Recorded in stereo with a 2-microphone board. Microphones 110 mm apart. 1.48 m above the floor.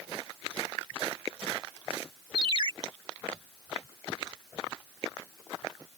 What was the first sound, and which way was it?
A ringtone, 50° right (ahead or behind).